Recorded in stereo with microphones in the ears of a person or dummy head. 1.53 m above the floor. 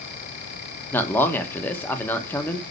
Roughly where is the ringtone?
No ringtone in this recording.